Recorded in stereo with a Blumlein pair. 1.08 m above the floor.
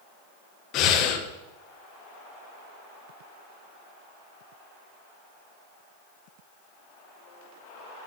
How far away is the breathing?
About 0.9 m.